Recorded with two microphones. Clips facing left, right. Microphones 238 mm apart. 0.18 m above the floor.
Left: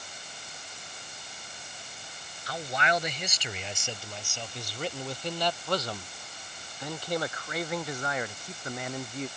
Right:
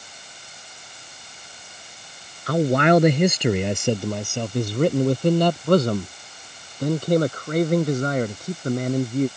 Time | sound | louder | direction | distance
2.5 | a man speaking | right 15 dB | 60° right (ahead or behind) | ?